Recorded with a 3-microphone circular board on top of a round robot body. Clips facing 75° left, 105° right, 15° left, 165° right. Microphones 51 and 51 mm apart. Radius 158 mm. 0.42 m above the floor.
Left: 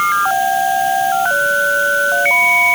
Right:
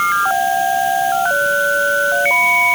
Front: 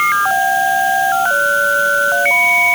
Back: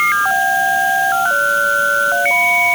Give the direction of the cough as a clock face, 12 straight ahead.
I don't hear a cough.